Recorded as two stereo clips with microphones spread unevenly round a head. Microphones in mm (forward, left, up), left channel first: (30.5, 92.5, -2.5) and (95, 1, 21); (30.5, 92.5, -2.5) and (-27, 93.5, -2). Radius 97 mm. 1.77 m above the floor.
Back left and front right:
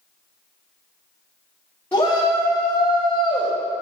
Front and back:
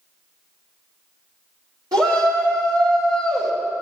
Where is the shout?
150° right, 4 m; by 3.5 s 175° right, 1.9 m.